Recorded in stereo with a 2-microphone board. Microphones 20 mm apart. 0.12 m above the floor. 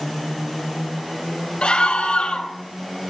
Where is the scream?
45° left (ahead or behind), 2.0 m.